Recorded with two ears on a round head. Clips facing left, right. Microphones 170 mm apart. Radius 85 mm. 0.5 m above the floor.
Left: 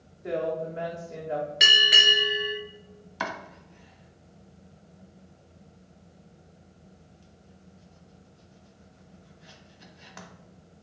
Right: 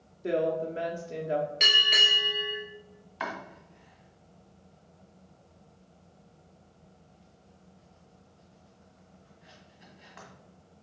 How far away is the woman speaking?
About 0.8 m.